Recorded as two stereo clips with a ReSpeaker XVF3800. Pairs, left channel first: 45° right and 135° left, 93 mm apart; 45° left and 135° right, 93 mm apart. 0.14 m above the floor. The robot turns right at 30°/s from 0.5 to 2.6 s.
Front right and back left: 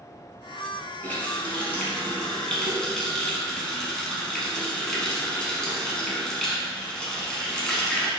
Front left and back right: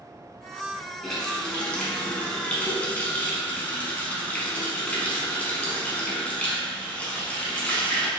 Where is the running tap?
25° right, 0.8 m; by 8.1 s 20° left, 0.8 m.